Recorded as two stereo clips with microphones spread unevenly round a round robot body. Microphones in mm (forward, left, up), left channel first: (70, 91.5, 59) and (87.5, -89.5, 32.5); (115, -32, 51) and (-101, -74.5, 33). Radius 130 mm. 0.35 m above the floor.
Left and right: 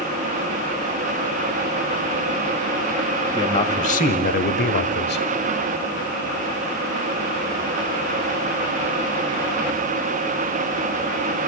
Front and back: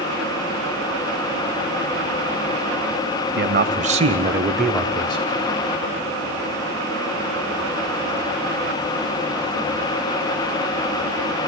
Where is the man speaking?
160° left, 1.8 m; by 5.3 s 80° left, 1.8 m.